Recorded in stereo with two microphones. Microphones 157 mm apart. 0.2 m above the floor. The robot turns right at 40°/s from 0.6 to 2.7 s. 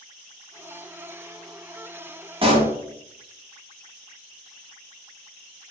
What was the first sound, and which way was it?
A pop, 35° right (ahead or behind).